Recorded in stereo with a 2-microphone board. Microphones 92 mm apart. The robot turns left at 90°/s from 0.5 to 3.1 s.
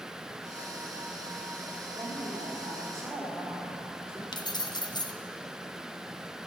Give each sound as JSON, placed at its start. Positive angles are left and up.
{"t": 1.9, "sound": "a woman speaking", "azimuth_deg": -45, "distance_m": 2.5}
{"t": 4.3, "sound": "keys jangling", "side_deg": 45, "distance_m": 0.6}